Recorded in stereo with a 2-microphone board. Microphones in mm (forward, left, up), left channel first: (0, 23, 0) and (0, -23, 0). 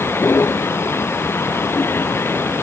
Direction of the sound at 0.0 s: 65° left (ahead or behind).